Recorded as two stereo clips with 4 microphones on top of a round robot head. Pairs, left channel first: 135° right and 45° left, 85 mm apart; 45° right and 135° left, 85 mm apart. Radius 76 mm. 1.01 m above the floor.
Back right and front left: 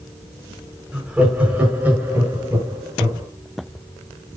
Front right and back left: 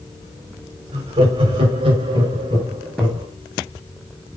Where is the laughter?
125° left, 5.5 m; by 3.3 s 105° left, 7 m.